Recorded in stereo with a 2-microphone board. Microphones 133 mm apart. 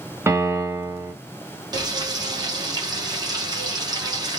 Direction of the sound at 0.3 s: 20° right (ahead or behind).